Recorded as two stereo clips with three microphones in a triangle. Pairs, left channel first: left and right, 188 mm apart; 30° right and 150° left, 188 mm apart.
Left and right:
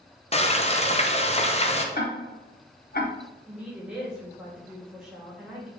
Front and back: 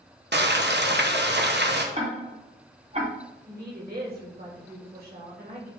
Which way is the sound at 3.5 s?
175° right.